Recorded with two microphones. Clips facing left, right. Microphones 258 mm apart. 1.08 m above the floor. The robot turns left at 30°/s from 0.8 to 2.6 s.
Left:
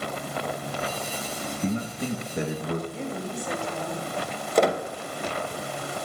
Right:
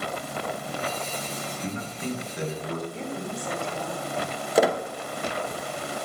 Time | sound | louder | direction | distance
1.6 | a man speaking | left 5 dB | 35° left (ahead or behind) | 1.1 m
2.9 | a woman speaking | left 1 dB | 5° left (ahead or behind) | 2.5 m
4.5 | a squeak | even | 5° right (ahead or behind) | 0.7 m